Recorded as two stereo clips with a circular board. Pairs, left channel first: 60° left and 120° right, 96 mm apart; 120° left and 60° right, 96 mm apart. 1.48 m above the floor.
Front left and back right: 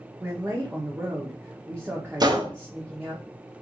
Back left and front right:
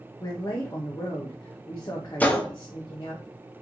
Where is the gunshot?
165° right, 0.6 m.